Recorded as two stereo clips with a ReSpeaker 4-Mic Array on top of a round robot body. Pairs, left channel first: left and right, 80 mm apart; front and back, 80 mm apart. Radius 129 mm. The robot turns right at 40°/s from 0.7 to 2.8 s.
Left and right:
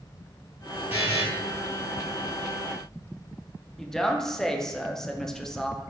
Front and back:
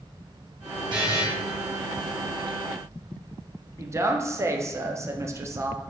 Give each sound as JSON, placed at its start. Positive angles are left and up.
{"t": 0.9, "sound": "a buzzer", "azimuth_deg": -155, "distance_m": 1.9}
{"t": 3.8, "sound": "a woman speaking", "azimuth_deg": 170, "distance_m": 0.7}